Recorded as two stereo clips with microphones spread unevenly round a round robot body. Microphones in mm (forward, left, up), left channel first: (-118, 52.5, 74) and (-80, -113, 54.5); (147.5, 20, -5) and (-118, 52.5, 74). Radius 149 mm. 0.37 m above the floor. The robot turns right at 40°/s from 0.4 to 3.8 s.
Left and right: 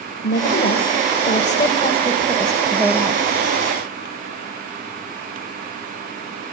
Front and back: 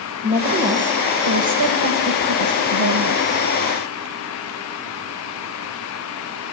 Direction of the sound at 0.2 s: 105° left.